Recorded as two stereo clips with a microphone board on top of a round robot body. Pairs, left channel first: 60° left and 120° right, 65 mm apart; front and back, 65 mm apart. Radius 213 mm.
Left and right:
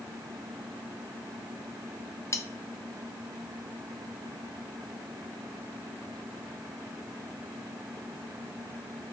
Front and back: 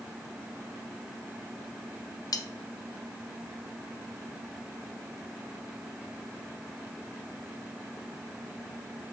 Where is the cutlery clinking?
20° left, 0.9 m.